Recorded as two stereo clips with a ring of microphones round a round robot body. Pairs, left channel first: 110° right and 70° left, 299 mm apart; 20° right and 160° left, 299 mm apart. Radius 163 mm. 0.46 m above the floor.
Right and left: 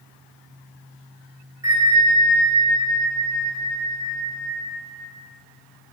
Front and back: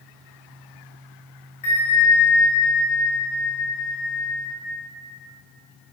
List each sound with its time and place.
1.6 s a bell: 10° right, 0.7 m